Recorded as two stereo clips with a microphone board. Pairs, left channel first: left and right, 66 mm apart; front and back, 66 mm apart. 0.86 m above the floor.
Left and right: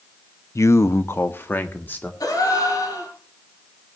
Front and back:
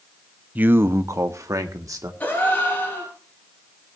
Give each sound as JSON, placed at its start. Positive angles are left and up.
{"t": 0.6, "sound": "a man speaking", "azimuth_deg": 120, "distance_m": 0.6}
{"t": 2.2, "sound": "a gasp", "azimuth_deg": 65, "distance_m": 5.5}